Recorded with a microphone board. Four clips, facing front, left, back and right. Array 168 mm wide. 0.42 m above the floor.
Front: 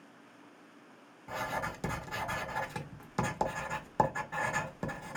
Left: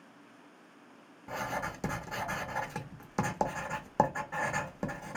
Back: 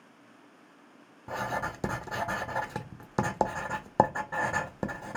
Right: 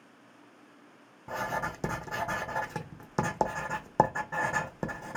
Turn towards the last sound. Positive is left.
turn(degrees=-155)